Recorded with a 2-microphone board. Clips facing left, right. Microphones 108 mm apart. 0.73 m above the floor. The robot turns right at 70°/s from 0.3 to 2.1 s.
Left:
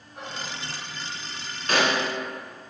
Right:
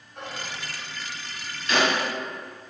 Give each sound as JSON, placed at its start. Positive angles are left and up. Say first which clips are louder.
{"t": 0.1, "sound": "whispering", "louder": "even", "side_deg": 5, "distance_m": 1.4}
{"t": 1.7, "sound": "a snare drum", "louder": "even", "side_deg": 55, "distance_m": 2.0}